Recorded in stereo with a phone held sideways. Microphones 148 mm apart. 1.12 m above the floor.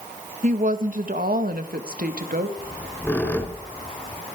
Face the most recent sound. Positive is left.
turn(degrees=10)  # may be behind; listen again after turning